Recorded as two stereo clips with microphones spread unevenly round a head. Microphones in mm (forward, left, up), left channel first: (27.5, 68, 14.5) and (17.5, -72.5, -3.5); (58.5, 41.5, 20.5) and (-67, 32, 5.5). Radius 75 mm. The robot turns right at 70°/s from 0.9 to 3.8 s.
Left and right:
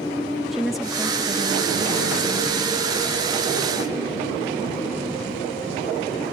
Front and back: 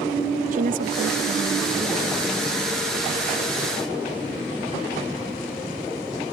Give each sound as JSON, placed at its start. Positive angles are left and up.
{"t": 0.5, "sound": "a woman speaking", "azimuth_deg": 175}